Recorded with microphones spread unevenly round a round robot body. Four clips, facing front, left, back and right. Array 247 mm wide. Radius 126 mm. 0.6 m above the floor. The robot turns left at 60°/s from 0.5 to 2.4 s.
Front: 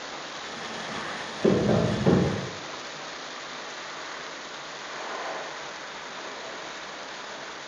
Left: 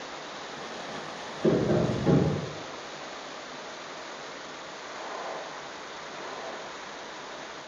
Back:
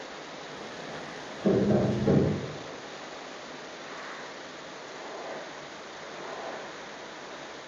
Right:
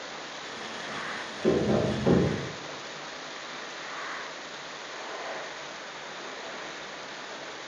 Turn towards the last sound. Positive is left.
turn(degrees=-45)